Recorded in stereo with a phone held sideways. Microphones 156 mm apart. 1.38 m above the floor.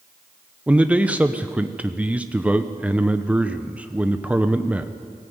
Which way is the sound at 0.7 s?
10° right (ahead or behind).